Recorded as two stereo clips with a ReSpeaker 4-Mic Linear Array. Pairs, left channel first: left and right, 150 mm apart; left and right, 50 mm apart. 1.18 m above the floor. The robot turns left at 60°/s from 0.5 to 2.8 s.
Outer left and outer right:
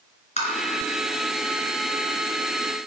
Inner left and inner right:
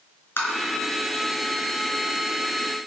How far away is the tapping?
About 4 m.